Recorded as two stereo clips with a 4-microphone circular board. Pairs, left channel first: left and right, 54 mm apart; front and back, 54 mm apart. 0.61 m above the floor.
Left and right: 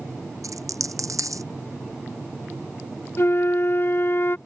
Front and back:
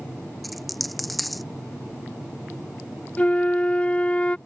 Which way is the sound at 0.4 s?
90° right.